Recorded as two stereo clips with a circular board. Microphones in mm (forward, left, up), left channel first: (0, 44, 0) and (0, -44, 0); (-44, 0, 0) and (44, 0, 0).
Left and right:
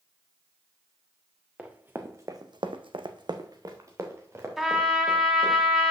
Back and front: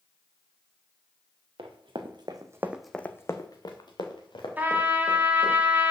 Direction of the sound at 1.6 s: 15° right.